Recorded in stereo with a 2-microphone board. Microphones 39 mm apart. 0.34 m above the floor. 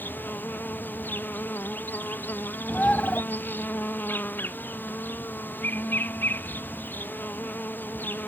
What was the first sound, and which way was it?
An insect, 55° left (ahead or behind).